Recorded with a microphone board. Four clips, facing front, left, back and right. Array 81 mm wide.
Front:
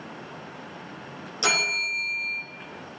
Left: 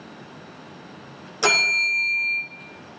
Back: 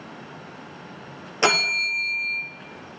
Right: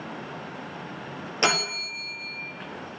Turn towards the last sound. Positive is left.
turn(degrees=-155)